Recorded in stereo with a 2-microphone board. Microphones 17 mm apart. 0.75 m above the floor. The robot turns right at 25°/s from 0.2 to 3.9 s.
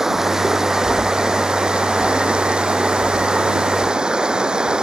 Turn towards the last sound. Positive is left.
turn(degrees=-55)